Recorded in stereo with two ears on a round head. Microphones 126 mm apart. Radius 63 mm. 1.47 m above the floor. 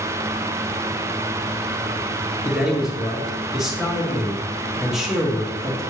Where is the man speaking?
5° right (ahead or behind), 1.4 m.